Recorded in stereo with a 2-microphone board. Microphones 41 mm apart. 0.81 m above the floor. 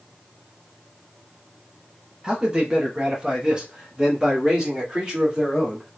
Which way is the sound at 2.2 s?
20° right (ahead or behind).